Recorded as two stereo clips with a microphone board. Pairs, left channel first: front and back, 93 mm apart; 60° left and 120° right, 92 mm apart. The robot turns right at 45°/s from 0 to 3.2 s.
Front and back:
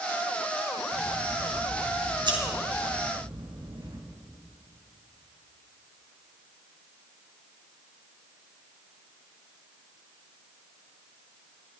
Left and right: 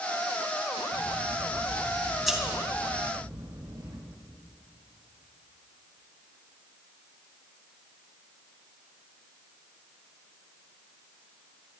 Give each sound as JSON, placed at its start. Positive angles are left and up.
{"t": 0.9, "sound": "scissors", "azimuth_deg": 90, "distance_m": 3.0}